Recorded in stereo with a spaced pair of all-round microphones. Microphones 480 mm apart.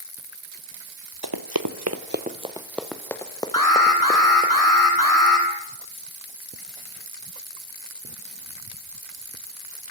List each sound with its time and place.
1.2 s running footsteps: 50° right (ahead or behind), 1.6 m; by 4.5 s 15° left (ahead or behind), 4.5 m
3.5 s an alarm: 40° left (ahead or behind), 8 m